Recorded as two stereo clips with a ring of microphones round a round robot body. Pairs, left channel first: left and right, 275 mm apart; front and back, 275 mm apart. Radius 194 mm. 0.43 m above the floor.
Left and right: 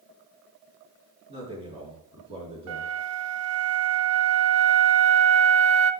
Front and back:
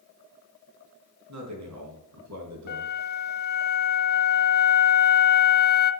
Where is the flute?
60° right, 0.7 m.